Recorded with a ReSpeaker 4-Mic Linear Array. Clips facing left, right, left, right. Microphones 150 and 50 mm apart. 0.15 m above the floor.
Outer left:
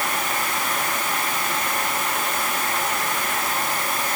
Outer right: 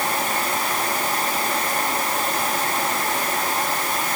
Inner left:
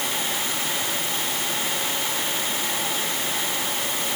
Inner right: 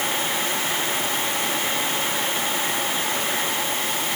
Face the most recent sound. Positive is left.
No sound to turn to.